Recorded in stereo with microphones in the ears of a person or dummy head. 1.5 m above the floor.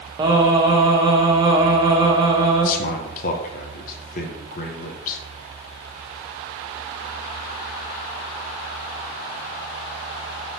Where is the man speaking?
50° left (ahead or behind), 0.6 m.